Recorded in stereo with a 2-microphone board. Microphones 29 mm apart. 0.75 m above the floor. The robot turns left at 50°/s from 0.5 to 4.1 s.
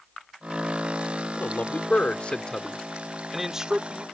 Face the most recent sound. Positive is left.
turn(degrees=-45)